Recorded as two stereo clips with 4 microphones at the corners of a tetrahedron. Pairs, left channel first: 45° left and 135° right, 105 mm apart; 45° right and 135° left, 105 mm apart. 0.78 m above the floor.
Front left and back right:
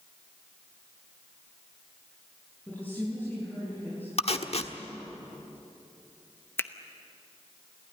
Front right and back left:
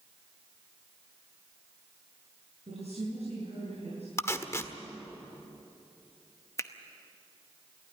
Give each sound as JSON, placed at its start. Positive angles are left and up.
{"t": 2.7, "sound": "a woman speaking", "azimuth_deg": 120, "distance_m": 8.0}
{"t": 4.2, "sound": "tape being pulled", "azimuth_deg": 20, "distance_m": 1.3}
{"t": 6.6, "sound": "a finger snap", "azimuth_deg": -10, "distance_m": 0.9}